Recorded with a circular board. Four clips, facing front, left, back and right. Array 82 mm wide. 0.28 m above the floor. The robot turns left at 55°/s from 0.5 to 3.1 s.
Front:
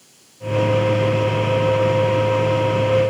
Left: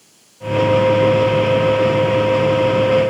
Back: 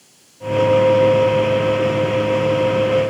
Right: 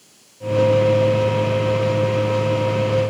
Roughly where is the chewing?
I don't hear chewing.